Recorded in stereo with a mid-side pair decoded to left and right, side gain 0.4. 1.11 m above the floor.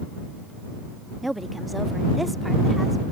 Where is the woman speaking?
10° right; by 3.0 s straight ahead.